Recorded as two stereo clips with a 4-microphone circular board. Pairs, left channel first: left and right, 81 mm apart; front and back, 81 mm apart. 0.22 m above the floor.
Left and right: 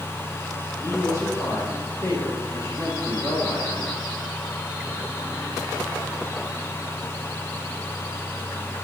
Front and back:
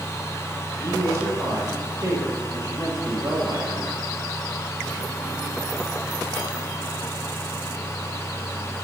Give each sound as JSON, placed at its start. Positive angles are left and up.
{"t": 0.8, "sound": "a woman speaking", "azimuth_deg": 135, "distance_m": 7.0}